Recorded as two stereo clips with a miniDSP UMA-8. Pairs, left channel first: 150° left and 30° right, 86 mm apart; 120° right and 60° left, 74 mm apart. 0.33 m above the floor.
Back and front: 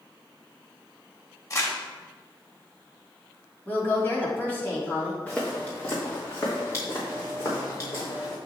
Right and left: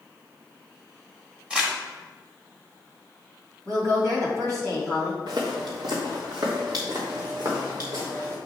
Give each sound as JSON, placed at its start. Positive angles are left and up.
{"t": 1.5, "sound": "crumpling", "azimuth_deg": 130, "distance_m": 1.4}
{"t": 3.6, "sound": "a woman speaking", "azimuth_deg": 85, "distance_m": 2.0}
{"t": 5.3, "sound": "footsteps", "azimuth_deg": 75, "distance_m": 2.0}